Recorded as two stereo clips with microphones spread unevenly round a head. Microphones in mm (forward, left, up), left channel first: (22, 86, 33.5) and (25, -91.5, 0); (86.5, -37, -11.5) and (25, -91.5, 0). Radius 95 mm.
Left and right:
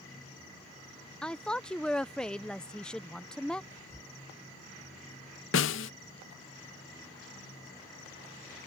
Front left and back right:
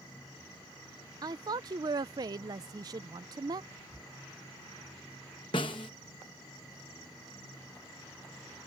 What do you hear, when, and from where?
1.2 s a woman speaking: 175° right
3.7 s whispering: 145° left
5.5 s a snare drum: 95° left